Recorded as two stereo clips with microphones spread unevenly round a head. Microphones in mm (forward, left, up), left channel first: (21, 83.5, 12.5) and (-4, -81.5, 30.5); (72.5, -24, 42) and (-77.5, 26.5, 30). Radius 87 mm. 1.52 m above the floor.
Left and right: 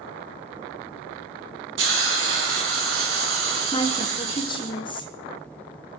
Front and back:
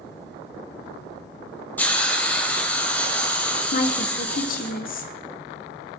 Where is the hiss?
100° right, 4 m.